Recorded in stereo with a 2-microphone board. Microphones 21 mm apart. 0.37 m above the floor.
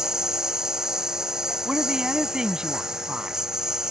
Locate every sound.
0.0 s a lawn mower: 30° right (ahead or behind)
1.6 s a woman speaking: 45° right (ahead or behind)